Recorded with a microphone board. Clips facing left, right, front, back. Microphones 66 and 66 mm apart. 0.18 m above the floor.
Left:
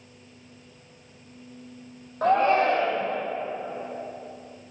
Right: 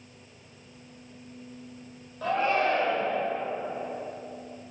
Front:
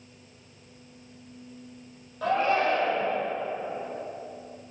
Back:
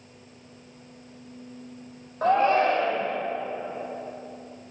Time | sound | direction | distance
2.2 | a shout | 130° left | 5 m